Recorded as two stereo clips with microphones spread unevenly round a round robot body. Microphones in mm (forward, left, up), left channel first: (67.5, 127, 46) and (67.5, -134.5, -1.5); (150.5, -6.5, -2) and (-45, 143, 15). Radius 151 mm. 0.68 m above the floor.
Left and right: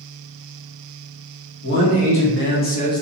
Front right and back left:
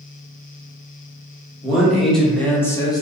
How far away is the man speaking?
About 1.3 m.